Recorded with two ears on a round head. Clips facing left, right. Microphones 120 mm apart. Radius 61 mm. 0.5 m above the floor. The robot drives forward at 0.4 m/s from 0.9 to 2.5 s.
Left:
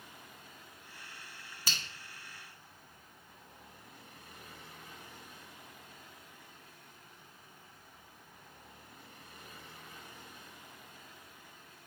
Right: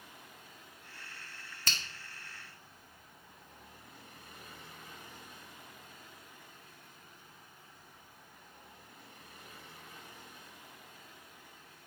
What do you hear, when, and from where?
1.7 s a finger snap: 5° left (ahead or behind), 1.1 m